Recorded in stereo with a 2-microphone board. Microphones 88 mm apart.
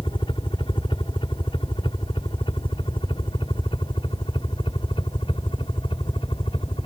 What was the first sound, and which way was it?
A helicopter, 65° left (ahead or behind).